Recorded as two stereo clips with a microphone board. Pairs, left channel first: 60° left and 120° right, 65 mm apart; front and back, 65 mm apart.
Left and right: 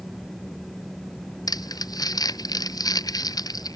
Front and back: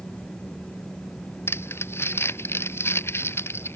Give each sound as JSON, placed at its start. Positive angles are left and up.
{"t": 1.5, "sound": "crumpling", "azimuth_deg": 50}